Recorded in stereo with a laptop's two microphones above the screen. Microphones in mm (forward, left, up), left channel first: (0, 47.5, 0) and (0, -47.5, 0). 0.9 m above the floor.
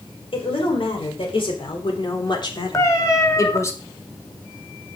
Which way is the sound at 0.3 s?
75° left (ahead or behind).